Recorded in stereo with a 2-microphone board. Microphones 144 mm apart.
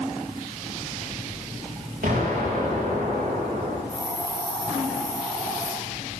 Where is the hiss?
20° left (ahead or behind), 8.5 m.